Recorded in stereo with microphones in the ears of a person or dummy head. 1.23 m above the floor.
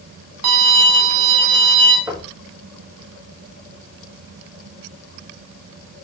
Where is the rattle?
No rattle in this recording.